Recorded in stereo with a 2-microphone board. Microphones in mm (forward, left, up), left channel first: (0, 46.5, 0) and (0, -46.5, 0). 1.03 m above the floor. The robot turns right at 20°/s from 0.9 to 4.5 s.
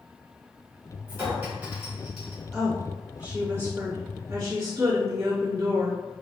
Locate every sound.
1.1 s a clink: 25° right (ahead or behind), 2.0 m; by 2.4 s centre (ahead or behind), 2.0 m
2.5 s a woman speaking: straight behind, 1.7 m; by 6.0 s 140° right, 1.7 m